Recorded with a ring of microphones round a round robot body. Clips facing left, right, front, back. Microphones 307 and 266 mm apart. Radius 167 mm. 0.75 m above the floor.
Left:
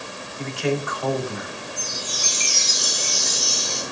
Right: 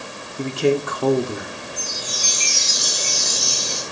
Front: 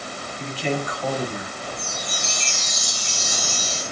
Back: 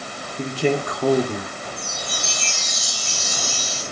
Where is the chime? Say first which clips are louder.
Right 1 dB, even; 95° right, 5 m.